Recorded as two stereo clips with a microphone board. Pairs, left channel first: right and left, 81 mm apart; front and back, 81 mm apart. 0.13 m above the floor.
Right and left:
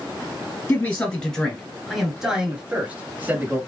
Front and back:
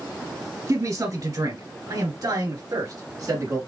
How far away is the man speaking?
About 2 m.